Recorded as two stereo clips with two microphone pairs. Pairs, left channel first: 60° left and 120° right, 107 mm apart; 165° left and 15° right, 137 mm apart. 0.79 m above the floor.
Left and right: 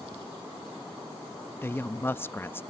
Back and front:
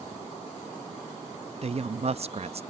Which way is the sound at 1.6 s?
Straight ahead.